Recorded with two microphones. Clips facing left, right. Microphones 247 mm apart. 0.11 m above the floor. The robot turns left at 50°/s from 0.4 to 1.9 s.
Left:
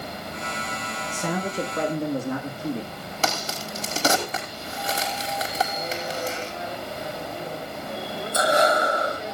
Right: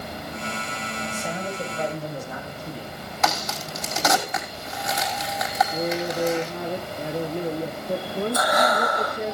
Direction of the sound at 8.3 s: 25° left (ahead or behind).